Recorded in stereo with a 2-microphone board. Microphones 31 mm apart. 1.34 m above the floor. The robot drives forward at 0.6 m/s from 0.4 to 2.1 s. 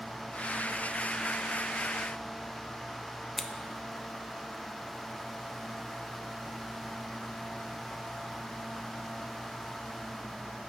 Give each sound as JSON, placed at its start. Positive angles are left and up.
{"t": 3.4, "sound": "scissors", "side_deg": 5, "distance_m": 0.6}